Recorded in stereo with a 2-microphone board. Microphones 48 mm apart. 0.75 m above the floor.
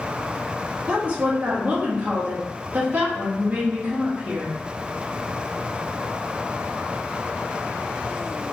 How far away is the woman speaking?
About 1.1 m.